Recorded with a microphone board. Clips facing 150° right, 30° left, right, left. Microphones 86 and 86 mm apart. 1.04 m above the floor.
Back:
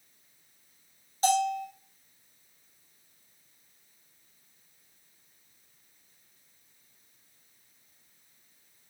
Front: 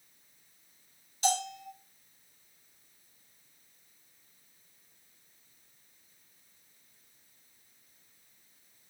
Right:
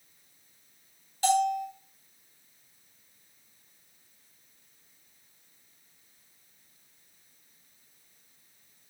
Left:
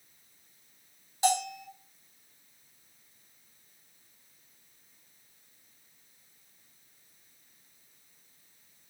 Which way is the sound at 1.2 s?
160° left.